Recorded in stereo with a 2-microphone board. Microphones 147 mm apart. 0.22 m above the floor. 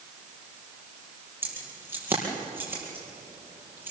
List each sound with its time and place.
1.4 s keys jangling: 15° right (ahead or behind), 5 m